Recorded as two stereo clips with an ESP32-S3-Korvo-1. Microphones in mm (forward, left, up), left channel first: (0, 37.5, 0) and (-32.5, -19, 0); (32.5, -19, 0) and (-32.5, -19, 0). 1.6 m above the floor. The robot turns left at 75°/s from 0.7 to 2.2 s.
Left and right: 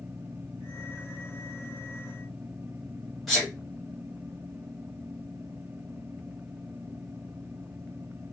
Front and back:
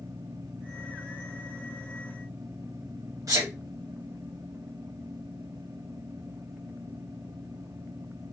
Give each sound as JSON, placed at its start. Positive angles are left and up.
{"t": 3.3, "sound": "a sneeze", "azimuth_deg": 145, "distance_m": 0.8}